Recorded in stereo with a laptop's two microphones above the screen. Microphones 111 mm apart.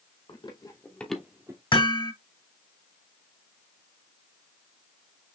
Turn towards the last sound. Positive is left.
turn(degrees=50)  # may be behind; listen again after turning